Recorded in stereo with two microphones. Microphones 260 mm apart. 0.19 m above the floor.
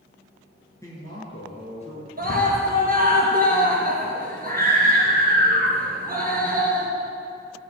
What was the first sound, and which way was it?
A man speaking, 10° left (ahead or behind).